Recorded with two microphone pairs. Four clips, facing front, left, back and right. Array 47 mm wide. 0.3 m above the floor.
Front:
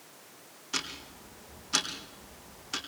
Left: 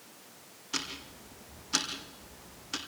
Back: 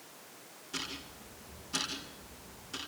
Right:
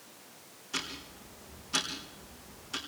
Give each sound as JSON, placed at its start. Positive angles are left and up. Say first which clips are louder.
{"t": 0.7, "sound": "ticking", "louder": "even, front 4 dB", "azimuth_deg": 35, "distance_m": 4.0}